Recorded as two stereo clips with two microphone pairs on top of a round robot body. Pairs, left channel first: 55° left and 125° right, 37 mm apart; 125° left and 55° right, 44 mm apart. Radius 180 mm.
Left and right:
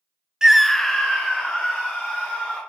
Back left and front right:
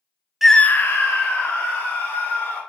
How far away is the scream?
About 0.6 m.